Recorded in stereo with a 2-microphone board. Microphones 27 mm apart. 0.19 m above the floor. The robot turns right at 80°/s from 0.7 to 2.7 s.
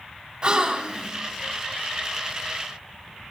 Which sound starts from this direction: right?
A gasp, at 0.4 s.